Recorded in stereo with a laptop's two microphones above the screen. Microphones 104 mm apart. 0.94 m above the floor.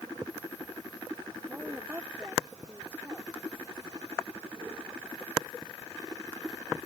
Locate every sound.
1.5 s a woman speaking: 20° right (ahead or behind)